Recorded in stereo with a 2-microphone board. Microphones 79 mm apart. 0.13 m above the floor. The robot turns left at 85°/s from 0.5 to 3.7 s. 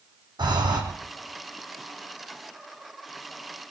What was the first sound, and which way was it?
Breathing, 80° right.